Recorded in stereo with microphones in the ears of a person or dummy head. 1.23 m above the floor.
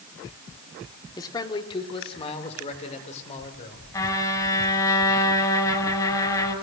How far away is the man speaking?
About 2.5 m.